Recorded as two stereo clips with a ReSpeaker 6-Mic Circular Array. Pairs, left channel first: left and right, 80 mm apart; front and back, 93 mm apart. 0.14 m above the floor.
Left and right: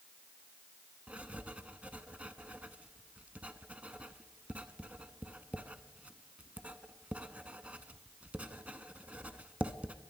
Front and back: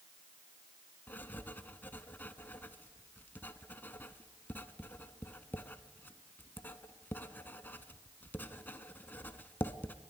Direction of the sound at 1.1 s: 35° right.